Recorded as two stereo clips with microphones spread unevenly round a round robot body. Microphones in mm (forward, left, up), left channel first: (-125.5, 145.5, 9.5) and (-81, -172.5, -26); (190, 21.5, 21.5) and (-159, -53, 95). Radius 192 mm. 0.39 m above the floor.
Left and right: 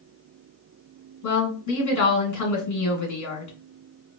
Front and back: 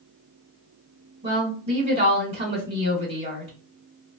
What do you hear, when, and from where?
1.2 s a woman speaking: 110° left, 1.8 m